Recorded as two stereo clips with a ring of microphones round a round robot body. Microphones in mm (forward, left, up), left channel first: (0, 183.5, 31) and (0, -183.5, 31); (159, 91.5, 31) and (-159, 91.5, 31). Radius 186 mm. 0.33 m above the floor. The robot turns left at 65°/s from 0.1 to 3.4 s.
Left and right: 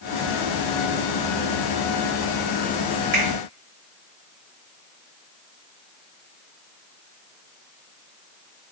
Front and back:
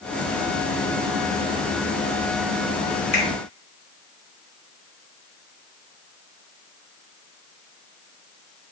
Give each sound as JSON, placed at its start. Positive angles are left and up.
{"t": 3.1, "sound": "a finger snap", "azimuth_deg": -30, "distance_m": 4.0}